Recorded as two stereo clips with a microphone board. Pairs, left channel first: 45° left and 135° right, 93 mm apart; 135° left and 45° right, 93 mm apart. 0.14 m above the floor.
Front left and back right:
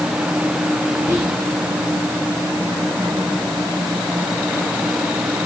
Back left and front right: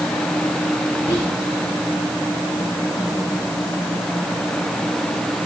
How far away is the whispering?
About 4 m.